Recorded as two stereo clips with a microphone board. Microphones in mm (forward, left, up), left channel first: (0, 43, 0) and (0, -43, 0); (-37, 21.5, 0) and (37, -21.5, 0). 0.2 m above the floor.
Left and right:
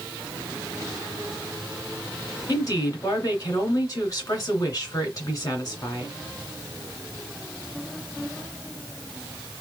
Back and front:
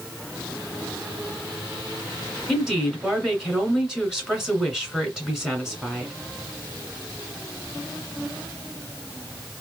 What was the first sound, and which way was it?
A woman speaking, 50° left.